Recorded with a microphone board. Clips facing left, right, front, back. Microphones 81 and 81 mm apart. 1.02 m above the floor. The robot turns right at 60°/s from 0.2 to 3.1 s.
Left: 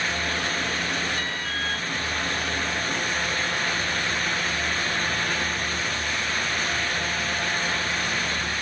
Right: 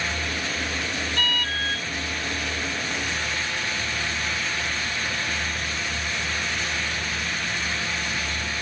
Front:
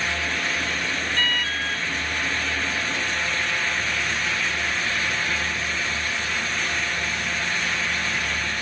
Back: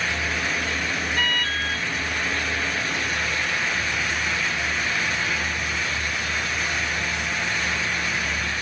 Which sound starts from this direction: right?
An alarm, at 1.2 s.